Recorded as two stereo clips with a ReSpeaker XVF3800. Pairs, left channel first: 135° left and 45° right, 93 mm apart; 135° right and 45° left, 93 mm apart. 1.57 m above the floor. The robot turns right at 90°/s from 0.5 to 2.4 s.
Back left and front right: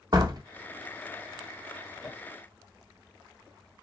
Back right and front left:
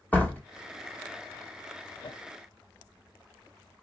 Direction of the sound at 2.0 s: 160° right.